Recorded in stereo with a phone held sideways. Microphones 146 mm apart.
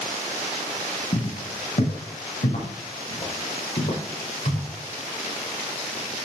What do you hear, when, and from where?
1.1 s footsteps: 60° left (ahead or behind), 4 m; by 4.7 s 80° left, 8.5 m